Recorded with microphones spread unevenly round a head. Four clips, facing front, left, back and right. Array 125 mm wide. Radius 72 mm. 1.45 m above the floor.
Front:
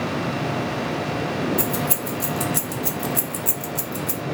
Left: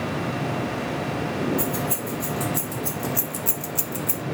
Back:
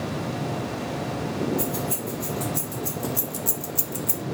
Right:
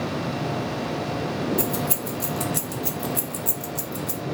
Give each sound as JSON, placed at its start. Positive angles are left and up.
{"t": 1.6, "sound": "keys jangling", "azimuth_deg": -45, "distance_m": 1.4}